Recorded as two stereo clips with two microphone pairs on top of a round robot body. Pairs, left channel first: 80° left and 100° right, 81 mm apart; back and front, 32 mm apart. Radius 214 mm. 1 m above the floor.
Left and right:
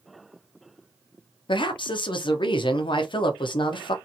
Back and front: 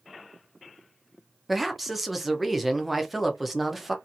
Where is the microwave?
No microwave in this recording.